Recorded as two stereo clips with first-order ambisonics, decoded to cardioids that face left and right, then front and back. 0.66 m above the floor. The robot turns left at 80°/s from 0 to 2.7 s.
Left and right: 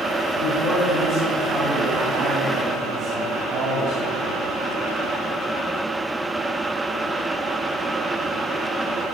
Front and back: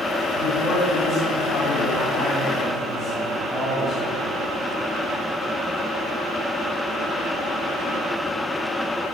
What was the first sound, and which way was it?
A man speaking, 105° left.